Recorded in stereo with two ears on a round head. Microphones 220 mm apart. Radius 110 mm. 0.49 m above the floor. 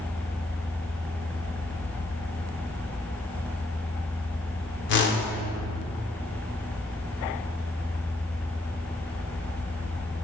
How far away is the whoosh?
About 0.9 m.